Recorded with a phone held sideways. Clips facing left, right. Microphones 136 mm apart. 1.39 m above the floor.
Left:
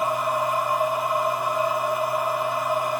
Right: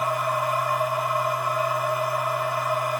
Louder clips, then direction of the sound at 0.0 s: Left 1 dB; 20° left (ahead or behind).